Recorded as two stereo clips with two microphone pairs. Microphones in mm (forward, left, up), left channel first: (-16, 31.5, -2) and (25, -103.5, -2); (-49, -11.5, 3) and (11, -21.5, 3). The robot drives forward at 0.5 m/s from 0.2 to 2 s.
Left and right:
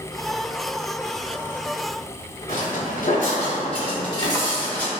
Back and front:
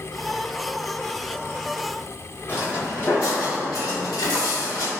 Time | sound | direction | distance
2.5 | footsteps | 120° left | 1.2 m